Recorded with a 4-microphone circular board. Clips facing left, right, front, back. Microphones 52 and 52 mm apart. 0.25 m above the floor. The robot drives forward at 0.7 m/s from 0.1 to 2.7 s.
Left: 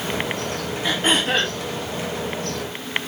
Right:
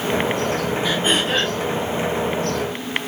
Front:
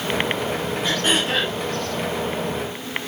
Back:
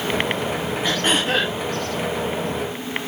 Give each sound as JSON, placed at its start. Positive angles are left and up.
{"t": 0.8, "sound": "throat clearing", "azimuth_deg": 130, "distance_m": 5.0}